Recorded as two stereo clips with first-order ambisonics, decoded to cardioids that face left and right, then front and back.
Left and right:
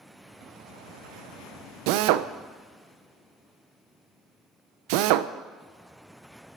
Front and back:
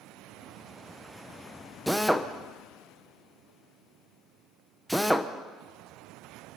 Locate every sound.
1.9 s a drill: 90° right, 0.8 m